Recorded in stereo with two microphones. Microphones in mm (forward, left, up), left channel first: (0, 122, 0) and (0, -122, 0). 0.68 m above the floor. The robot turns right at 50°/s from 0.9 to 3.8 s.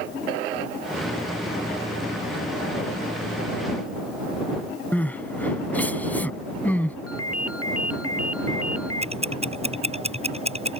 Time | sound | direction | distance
4.9 | crying | 5° left (ahead or behind) | ?
7.1 | a ringtone | 70° left (ahead or behind) | ?
9.0 | ticking | 25° right (ahead or behind) | ?